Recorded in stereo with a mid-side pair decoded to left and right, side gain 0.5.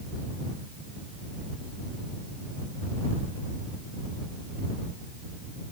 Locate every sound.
Only background noise.